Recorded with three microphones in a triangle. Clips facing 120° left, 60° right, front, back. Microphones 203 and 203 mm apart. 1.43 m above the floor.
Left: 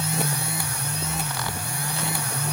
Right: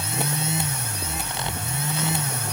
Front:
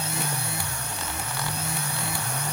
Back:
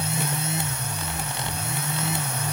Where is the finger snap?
No finger snap in this recording.